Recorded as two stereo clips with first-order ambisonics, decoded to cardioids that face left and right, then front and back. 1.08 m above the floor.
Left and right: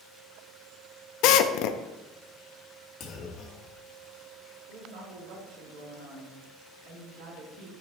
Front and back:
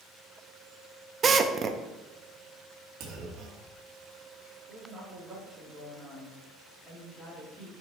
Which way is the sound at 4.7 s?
105° right.